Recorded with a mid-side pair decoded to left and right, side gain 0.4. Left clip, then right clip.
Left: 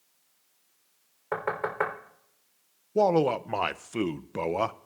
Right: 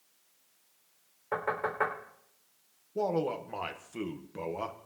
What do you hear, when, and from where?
1.3 s knocking: 45° left, 3.5 m
3.0 s a man speaking: 70° left, 0.5 m